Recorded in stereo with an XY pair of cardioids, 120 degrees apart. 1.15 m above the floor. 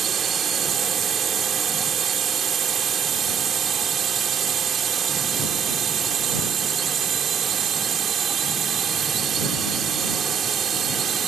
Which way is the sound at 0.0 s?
50° right.